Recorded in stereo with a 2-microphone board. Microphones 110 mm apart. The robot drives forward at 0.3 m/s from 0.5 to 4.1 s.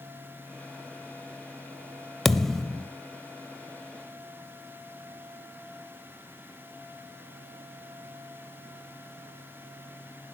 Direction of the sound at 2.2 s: Centre (ahead or behind).